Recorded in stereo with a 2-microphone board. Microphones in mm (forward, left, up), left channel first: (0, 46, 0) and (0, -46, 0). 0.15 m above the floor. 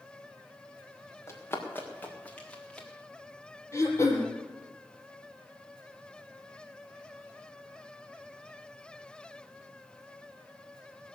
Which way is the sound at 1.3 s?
25° left (ahead or behind).